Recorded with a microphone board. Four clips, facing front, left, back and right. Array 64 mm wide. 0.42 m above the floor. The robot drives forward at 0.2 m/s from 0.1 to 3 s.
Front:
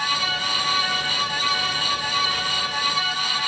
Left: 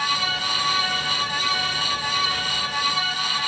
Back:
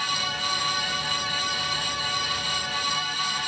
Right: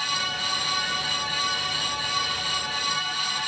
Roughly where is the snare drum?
No snare drum in this recording.